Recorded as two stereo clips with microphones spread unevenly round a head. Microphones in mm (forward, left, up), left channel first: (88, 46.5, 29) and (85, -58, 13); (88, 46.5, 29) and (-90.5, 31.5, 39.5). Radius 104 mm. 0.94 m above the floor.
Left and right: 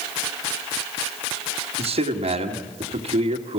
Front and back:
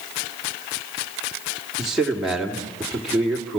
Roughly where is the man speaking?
Right.